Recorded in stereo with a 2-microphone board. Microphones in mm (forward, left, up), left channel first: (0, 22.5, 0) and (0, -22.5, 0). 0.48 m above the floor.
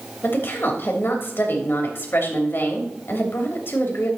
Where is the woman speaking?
55° left (ahead or behind), 3 m.